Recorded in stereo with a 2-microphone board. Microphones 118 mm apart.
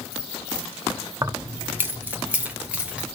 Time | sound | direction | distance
1.2 | keys jangling | 25° right (ahead or behind) | 0.9 m